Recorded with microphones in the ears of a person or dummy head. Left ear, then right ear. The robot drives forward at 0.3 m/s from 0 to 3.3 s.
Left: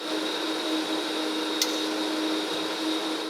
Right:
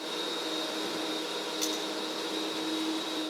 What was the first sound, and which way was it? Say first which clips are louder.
Cutlery clinking: left 5 dB; 40° left (ahead or behind).